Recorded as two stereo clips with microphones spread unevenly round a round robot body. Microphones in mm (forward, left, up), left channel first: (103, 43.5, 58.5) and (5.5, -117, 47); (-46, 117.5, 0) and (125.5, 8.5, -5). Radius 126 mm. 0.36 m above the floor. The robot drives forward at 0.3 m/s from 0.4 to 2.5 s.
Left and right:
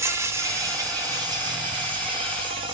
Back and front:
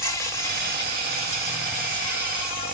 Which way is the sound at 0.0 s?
160° right.